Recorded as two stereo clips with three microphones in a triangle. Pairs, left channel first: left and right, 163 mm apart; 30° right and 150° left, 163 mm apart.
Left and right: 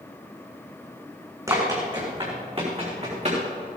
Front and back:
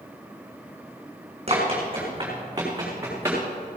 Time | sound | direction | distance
1.5 | running footsteps | 160° right | 5 m